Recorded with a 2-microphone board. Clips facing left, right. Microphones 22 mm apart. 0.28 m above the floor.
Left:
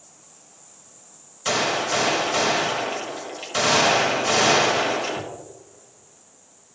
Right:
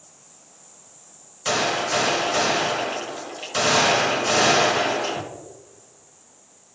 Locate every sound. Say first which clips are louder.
1.4 s a gunshot: even; centre (ahead or behind), 1.5 m